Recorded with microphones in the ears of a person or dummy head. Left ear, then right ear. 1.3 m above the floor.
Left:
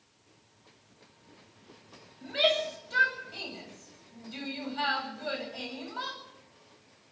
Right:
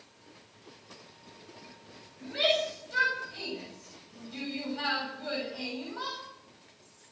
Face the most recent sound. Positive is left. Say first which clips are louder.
# left 1 dB
turn(degrees=30)  # may be behind; listen again after turning